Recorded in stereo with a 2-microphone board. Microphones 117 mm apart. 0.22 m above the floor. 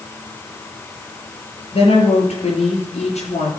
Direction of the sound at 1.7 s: 55° left (ahead or behind).